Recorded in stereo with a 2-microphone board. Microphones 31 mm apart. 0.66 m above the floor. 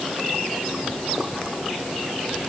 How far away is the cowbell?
No cowbell in this recording.